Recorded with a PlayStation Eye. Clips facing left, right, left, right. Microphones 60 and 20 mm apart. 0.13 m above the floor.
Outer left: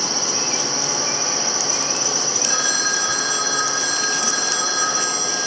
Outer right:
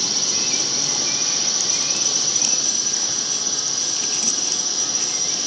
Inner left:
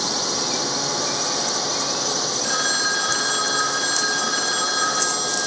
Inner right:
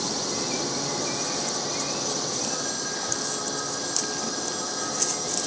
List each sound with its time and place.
0.0 s a drone: 30° left (ahead or behind)
2.4 s a phone ringing: 70° left (ahead or behind)